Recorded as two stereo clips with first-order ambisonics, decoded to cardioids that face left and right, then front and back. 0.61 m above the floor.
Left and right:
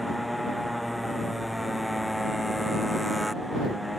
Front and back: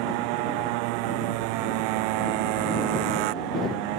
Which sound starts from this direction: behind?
A motorcycle, at 0.0 s.